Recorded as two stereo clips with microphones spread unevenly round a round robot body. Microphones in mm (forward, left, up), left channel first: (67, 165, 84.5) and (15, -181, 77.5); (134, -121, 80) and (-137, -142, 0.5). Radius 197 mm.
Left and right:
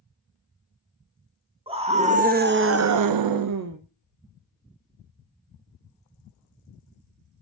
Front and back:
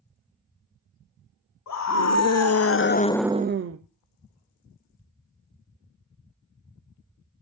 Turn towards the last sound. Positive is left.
turn(degrees=-155)